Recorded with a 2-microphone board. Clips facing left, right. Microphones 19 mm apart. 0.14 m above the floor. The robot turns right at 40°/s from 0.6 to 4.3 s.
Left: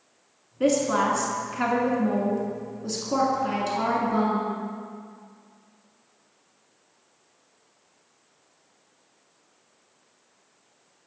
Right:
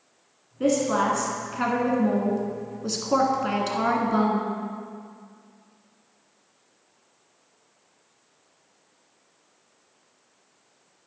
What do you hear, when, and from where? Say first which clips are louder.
0.6 s a woman speaking: even; 10° left (ahead or behind), 1.5 m; by 4.5 s 25° right (ahead or behind), 1.5 m